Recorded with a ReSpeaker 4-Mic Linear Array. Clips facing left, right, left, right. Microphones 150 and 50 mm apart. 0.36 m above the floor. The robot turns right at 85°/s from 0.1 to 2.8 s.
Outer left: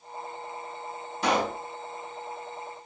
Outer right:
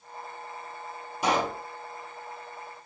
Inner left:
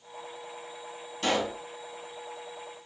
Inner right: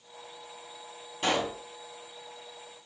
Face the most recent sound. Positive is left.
turn(degrees=115)